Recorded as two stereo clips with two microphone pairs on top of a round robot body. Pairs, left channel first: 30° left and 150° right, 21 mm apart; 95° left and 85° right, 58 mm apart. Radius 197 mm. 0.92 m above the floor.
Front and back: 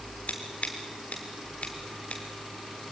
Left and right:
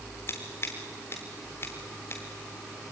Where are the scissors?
50° left, 0.6 m.